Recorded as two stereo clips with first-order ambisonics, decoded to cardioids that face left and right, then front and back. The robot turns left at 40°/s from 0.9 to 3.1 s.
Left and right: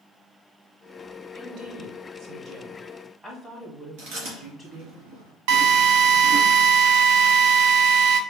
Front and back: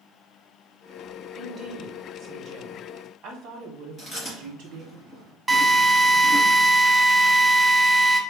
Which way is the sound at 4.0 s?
90° right.